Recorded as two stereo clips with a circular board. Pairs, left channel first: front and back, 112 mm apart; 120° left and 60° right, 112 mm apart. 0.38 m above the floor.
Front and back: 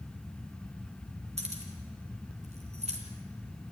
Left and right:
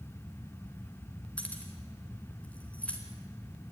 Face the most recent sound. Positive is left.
turn(degrees=-160)